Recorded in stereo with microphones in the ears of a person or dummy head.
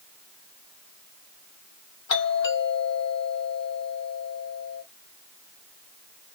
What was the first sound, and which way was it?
A doorbell, 70° left (ahead or behind).